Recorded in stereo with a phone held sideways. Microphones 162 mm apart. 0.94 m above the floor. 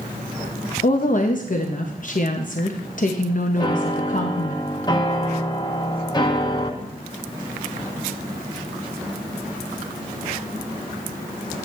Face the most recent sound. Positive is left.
turn(degrees=25)  # may be behind; listen again after turning